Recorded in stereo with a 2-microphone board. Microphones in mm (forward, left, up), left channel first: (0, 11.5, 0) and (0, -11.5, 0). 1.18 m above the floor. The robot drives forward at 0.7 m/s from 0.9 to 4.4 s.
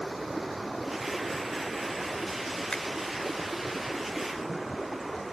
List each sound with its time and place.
0.0 s running water: centre (ahead or behind)
2.7 s a finger snap: 40° left (ahead or behind)